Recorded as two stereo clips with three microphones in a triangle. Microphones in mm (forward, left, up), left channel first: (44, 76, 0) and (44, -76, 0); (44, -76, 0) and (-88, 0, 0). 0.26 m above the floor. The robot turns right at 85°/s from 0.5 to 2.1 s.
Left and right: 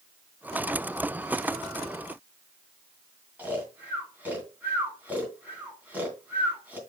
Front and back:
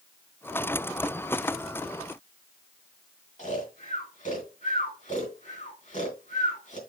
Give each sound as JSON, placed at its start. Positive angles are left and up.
{"t": 3.4, "sound": "snoring", "azimuth_deg": -15, "distance_m": 3.0}